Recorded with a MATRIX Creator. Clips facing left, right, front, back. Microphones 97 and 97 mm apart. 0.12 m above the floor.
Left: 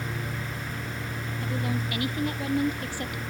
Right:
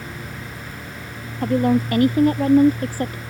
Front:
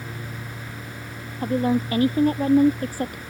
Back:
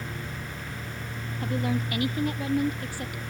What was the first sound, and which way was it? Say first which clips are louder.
A woman speaking: right 14 dB, front 7 dB; 55° right.